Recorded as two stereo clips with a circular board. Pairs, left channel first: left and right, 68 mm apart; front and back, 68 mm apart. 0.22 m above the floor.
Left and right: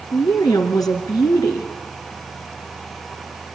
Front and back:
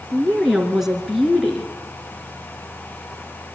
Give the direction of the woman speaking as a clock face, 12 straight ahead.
9 o'clock.